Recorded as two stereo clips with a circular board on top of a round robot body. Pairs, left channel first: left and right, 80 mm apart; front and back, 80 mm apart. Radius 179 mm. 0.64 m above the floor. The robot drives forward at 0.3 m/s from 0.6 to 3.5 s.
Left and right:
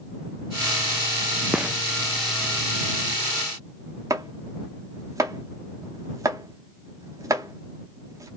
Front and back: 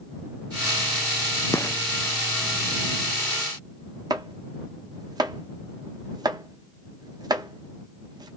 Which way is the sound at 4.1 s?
140° right.